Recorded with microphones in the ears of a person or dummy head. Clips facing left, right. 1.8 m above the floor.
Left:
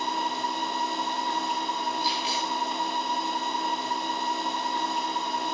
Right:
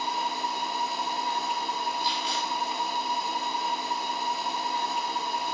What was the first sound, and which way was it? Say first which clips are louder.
A machine running: left 1 dB; centre (ahead or behind).